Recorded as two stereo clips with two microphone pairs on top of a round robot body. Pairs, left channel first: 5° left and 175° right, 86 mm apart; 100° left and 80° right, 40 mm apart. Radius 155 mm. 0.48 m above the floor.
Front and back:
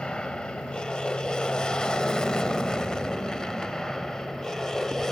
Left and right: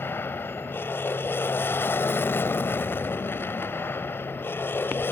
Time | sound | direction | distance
0.0 | an aircraft | 90° left | ?